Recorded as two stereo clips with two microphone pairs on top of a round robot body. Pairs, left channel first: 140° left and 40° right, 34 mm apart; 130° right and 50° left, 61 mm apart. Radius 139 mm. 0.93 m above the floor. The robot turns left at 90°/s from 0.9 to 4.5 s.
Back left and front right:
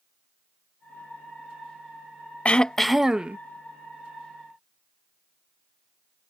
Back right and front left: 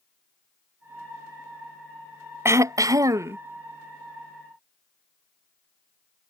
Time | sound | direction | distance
2.5 | throat clearing | 85° left | ?